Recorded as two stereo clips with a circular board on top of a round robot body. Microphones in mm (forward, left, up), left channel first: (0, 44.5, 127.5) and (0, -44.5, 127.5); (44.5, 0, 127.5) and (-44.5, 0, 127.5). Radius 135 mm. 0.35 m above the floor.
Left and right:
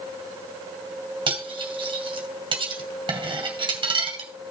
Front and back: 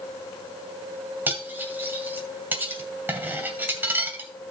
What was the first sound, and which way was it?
Cutlery clinking, 115° right.